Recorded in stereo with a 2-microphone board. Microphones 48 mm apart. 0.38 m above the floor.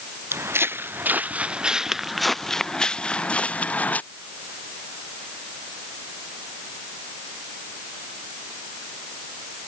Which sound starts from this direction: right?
Footsteps, at 0.3 s.